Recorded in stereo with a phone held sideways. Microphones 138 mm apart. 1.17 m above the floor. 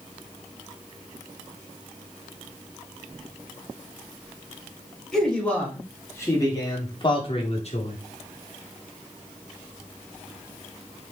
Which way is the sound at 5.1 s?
5° left (ahead or behind).